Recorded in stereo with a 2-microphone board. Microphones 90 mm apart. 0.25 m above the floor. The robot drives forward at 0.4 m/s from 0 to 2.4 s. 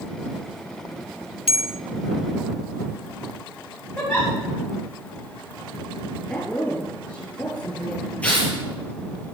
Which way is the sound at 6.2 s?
10° left (ahead or behind).